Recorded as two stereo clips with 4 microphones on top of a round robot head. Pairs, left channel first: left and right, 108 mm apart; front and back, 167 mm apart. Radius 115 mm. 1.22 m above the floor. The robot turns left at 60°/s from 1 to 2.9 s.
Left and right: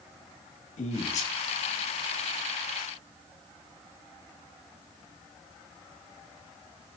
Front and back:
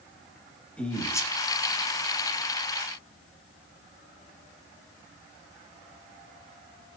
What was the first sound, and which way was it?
A man speaking, 80° left.